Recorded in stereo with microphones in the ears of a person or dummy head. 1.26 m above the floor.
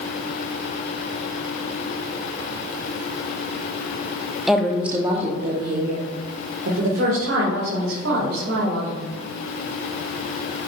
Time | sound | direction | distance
4.5 | a woman speaking | 5° left (ahead or behind) | 0.7 m